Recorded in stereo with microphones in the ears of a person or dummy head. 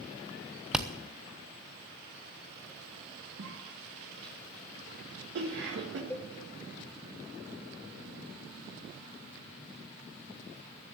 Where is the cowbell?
15° left (ahead or behind), 1.1 m.